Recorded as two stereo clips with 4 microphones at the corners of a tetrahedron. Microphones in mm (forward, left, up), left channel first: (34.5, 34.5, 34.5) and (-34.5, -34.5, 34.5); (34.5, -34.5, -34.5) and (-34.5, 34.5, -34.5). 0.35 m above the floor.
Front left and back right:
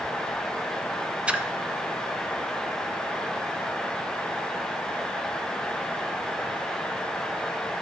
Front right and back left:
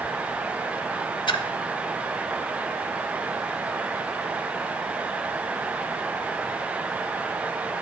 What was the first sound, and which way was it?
A splash, 60° right.